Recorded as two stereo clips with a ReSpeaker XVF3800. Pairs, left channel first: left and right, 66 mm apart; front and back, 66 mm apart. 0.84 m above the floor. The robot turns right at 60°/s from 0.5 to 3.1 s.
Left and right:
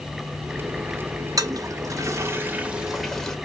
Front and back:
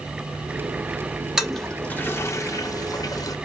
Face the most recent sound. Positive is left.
turn(degrees=5)